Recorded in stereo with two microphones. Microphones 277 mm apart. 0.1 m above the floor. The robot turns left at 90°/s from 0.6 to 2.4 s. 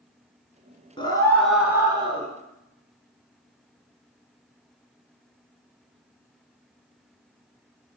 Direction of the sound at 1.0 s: 15° left (ahead or behind).